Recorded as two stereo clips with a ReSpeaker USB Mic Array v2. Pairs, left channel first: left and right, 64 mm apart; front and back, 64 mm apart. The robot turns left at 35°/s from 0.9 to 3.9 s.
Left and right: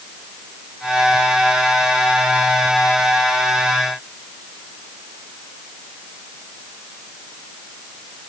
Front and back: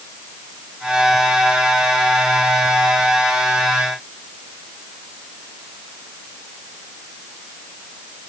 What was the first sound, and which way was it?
Only background noise.